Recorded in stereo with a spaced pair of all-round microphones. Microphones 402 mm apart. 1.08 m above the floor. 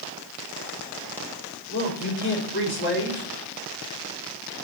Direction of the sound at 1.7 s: 30° left (ahead or behind).